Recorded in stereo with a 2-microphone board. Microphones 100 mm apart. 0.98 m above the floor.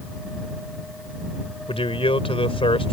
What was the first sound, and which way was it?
A man speaking, 70° left (ahead or behind).